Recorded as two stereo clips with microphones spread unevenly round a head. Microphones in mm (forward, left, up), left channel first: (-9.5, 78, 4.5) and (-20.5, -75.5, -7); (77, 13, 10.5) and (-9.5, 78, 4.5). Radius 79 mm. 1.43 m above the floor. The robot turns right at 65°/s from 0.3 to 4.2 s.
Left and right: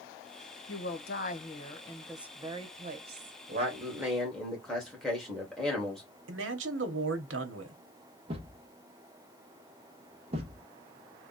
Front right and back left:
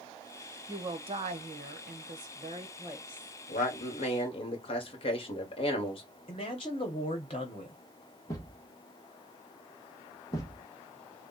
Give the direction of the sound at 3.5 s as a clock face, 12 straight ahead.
2 o'clock.